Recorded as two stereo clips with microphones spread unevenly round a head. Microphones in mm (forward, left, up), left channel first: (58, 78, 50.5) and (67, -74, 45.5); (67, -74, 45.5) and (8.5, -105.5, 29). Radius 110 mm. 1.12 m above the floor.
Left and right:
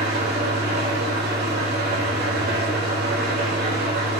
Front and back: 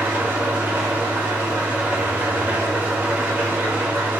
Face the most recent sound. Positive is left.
turn(degrees=-85)